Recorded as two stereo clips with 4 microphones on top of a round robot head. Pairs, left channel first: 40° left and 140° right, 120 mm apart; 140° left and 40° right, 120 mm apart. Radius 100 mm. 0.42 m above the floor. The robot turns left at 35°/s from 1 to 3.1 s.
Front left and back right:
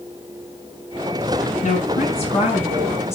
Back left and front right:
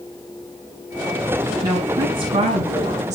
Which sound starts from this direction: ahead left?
A woman speaking, at 1.6 s.